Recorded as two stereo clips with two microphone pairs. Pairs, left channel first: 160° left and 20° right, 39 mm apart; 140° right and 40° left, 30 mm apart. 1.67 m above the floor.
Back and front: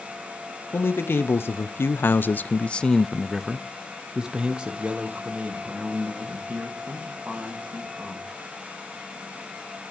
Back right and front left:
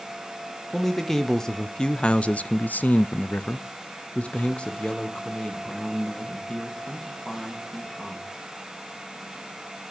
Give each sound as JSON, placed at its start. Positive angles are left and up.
{"t": 0.7, "sound": "a man speaking", "azimuth_deg": 145, "distance_m": 1.2}